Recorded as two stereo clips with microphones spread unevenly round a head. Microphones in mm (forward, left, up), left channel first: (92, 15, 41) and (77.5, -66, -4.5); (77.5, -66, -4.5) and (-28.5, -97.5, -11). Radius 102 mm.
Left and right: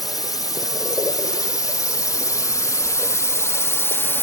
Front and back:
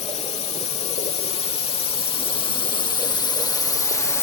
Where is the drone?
20° left; by 4.2 s 20° right.